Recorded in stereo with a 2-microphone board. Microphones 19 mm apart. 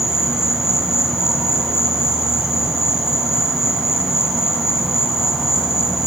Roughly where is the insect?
Right.